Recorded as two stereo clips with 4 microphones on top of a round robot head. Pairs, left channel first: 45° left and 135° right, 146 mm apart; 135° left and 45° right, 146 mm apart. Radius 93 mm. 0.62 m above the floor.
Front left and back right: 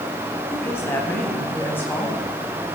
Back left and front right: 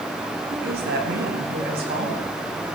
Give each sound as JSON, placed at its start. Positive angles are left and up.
{"t": 0.5, "sound": "a woman speaking", "azimuth_deg": -30, "distance_m": 4.0}